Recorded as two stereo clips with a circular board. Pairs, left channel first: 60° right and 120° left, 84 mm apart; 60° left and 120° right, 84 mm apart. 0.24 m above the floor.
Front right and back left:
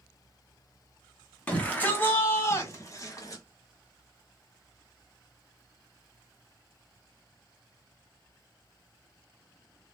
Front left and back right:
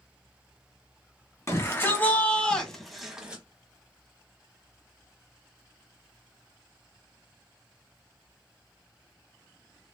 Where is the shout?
10° left, 1.6 m; by 3.4 s 50° right, 1.2 m.